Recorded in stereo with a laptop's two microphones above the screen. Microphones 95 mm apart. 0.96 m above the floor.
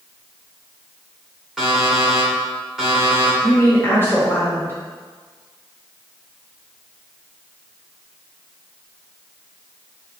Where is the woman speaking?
20° left (ahead or behind), 1.0 m.